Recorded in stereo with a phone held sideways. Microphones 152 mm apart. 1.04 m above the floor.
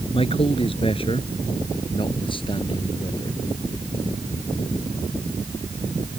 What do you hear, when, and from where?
0.1 s a man speaking: 40° left (ahead or behind); by 3.4 s 30° left (ahead or behind)